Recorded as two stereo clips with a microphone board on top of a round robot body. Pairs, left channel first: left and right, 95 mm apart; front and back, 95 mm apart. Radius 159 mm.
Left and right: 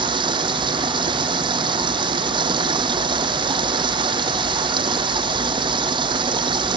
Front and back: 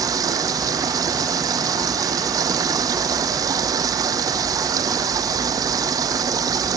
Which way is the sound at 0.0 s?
125° right.